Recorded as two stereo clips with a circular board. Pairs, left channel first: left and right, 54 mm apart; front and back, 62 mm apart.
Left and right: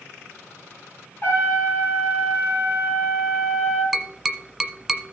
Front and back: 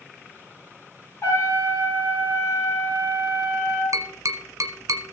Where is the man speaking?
No man speaking in this recording.